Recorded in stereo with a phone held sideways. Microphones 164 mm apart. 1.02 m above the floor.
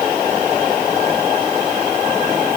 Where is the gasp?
No gasp in this recording.